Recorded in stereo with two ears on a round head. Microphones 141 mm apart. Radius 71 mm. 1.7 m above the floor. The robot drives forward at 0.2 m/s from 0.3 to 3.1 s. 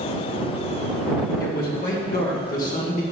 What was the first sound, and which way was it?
A man speaking, 65° left (ahead or behind).